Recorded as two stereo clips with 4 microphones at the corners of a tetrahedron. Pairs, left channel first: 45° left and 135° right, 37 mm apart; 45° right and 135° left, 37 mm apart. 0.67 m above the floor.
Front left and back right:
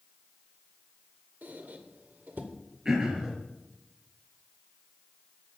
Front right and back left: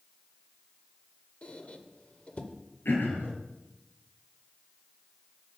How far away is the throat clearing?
About 3 m.